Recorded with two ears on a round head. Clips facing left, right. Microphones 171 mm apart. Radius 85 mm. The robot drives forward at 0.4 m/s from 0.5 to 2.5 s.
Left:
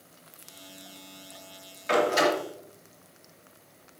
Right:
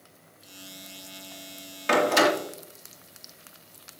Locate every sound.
1.9 s a door slam: 65° right (ahead or behind), 2.5 m